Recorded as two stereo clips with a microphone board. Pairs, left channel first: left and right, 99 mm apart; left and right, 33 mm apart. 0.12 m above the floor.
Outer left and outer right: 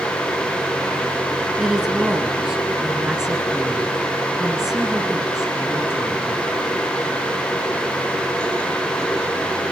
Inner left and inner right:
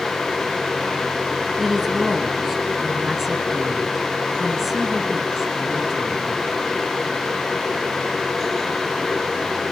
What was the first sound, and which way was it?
A woman speaking, 5° right (ahead or behind).